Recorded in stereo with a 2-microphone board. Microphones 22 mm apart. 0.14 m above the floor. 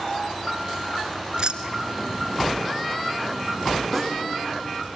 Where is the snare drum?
10° left (ahead or behind), 6.5 m.